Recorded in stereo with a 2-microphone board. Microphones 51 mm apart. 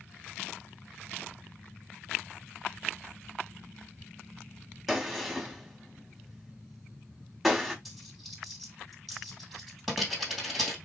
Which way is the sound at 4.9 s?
5° right (ahead or behind).